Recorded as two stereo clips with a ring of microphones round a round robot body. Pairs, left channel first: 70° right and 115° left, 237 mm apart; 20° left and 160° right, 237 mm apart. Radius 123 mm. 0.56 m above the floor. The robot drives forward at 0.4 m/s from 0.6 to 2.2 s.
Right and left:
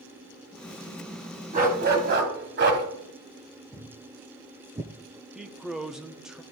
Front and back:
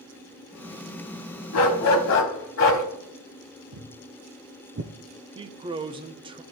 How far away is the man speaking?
About 0.6 m.